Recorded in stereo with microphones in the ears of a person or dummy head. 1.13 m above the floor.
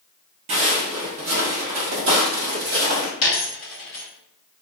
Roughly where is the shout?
I don't hear a shout.